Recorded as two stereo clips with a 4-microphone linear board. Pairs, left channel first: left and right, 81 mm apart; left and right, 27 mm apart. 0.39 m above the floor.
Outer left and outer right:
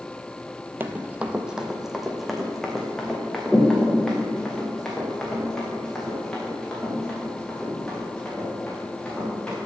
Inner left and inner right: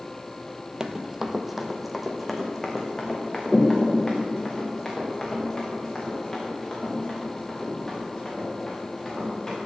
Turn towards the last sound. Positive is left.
turn(degrees=10)  # may be behind; listen again after turning